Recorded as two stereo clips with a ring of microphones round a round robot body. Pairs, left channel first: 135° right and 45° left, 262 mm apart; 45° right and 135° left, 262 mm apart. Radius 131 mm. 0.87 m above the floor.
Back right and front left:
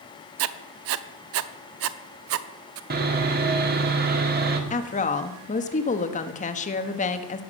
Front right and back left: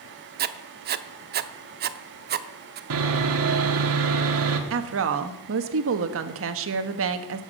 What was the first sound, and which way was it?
Writing, 80° left.